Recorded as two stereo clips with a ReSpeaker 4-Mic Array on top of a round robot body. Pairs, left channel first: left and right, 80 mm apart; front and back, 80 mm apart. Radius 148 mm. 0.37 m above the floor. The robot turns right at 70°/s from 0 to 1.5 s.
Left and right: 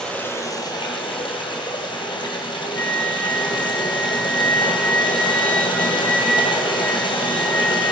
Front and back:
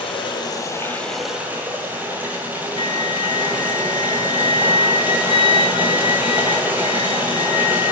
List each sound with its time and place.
0.0 s running water: 5° left, 2.0 m; by 7.9 s 110° left, 2.0 m
2.8 s a flute: 20° left, 1.0 m